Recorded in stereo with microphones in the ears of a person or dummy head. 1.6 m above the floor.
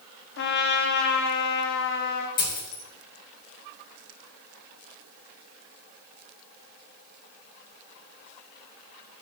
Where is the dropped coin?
55° left (ahead or behind), 2.5 m.